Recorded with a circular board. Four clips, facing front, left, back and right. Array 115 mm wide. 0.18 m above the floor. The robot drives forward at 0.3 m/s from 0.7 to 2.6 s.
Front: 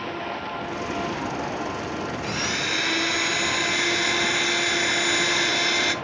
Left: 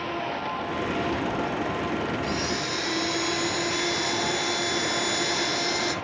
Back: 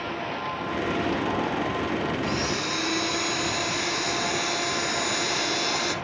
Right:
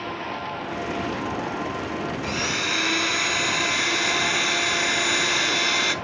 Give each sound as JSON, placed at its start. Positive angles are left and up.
{"t": 2.2, "sound": "a blender", "azimuth_deg": -65, "distance_m": 1.4}